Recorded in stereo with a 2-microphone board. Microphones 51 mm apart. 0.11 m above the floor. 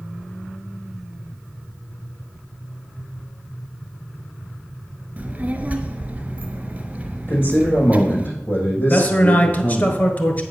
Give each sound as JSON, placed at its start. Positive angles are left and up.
{"t": 5.2, "sound": "a child speaking", "side_deg": -30, "distance_m": 1.1}
{"t": 7.3, "sound": "a man speaking", "side_deg": 40, "distance_m": 5.5}
{"t": 8.9, "sound": "a man speaking", "side_deg": 35, "distance_m": 1.4}